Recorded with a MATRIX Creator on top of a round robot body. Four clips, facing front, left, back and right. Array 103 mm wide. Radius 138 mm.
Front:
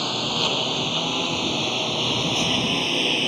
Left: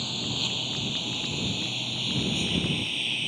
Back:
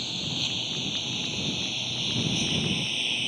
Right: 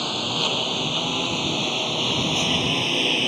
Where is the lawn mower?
35° right; by 3.3 s 45° right.